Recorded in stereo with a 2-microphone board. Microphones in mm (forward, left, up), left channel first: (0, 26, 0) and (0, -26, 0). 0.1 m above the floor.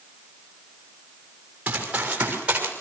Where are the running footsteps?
25° right (ahead or behind), 6.5 m.